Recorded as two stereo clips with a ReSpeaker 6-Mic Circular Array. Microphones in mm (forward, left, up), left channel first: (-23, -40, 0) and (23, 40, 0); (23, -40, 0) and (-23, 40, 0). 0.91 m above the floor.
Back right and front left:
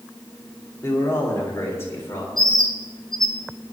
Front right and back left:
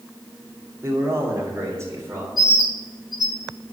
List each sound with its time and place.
0.8 s a man speaking: straight behind, 2.5 m; by 2.3 s 175° left, 4 m
2.4 s a bird: 155° left, 1.7 m